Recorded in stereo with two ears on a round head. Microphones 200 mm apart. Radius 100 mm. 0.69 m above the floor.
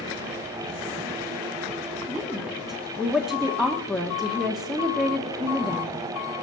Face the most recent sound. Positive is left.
turn(degrees=0)  # may be behind; listen again after turning